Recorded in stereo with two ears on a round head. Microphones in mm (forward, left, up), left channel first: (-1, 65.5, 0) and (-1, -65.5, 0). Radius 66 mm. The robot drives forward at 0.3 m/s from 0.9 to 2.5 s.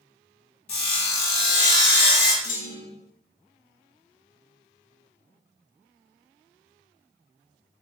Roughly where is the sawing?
Left.